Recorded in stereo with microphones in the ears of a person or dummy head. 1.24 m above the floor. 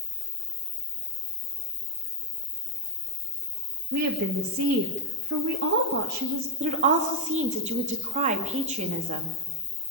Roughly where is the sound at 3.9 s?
Right.